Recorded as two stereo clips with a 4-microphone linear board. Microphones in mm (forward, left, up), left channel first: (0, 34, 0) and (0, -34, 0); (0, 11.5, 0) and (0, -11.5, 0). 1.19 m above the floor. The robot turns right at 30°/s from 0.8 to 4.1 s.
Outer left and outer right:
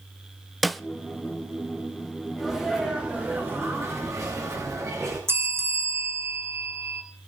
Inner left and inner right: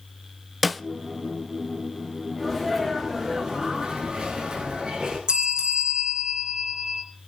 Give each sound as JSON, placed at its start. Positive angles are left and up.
{"t": 0.6, "sound": "a snare drum", "side_deg": 0, "distance_m": 0.6}
{"t": 2.4, "sound": "a sneeze", "azimuth_deg": 175, "distance_m": 6.0}
{"t": 5.3, "sound": "a bell", "side_deg": -35, "distance_m": 2.5}